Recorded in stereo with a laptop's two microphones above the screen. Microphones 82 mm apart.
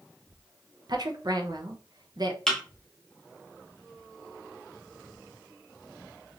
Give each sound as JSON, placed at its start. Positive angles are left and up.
{"t": 0.9, "sound": "a woman speaking", "side_deg": -55, "distance_m": 0.7}
{"t": 2.5, "sound": "a thud", "side_deg": 5, "distance_m": 1.1}